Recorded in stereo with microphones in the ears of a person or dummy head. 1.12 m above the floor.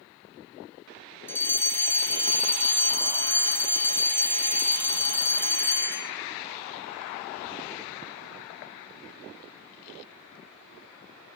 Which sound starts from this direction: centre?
A fire alarm, at 1.3 s.